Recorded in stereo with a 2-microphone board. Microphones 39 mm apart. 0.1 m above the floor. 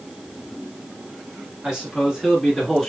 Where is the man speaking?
20° right (ahead or behind), 1.8 m; by 2.9 s centre (ahead or behind), 1.7 m.